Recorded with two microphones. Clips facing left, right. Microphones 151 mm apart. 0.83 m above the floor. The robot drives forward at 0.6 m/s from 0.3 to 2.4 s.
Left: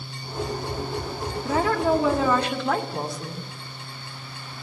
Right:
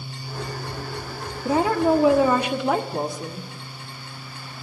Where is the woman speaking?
20° right (ahead or behind), 1.3 m; by 3.5 s 15° right (ahead or behind), 1.8 m.